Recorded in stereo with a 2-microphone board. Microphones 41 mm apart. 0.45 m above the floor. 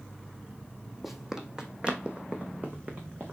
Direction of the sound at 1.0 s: 5° right (ahead or behind).